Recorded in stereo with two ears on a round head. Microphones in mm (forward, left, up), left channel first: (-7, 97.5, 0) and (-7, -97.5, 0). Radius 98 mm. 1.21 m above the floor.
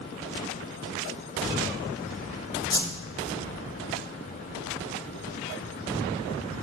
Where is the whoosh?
20° left (ahead or behind), 1.4 m.